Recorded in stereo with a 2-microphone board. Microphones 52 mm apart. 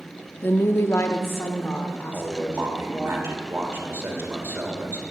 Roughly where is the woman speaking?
Left.